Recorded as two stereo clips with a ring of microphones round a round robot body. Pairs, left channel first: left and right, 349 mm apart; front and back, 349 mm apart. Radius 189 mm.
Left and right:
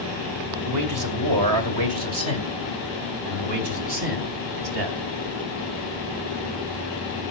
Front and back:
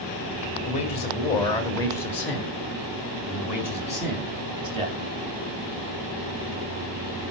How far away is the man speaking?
About 2.5 m.